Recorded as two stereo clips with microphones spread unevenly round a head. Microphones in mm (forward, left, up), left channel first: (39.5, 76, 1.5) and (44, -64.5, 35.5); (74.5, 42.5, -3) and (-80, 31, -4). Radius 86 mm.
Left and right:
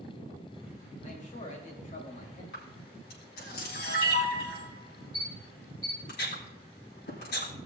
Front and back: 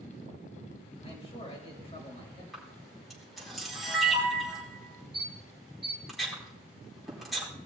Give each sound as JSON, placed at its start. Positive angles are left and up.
{"t": 1.0, "sound": "a man speaking", "azimuth_deg": 55, "distance_m": 3.0}
{"t": 2.5, "sound": "a camera shutter", "azimuth_deg": 95, "distance_m": 4.5}